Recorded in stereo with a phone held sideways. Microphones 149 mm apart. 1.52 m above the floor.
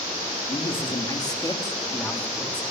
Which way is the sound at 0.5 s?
40° left (ahead or behind).